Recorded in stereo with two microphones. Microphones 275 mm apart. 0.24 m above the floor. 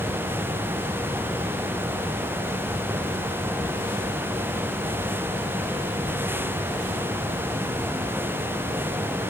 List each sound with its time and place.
Only background noise.